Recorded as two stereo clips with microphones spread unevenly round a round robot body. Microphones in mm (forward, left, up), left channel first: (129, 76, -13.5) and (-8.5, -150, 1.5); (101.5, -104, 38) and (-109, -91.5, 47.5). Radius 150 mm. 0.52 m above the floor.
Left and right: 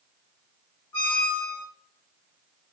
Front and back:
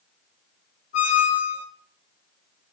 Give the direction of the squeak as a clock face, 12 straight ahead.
10 o'clock.